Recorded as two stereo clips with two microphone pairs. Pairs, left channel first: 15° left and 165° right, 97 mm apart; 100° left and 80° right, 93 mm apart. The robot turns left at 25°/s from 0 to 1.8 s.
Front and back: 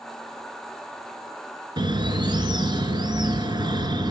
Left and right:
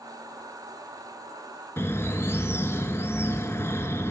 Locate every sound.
1.8 s a bird: 160° left, 1.1 m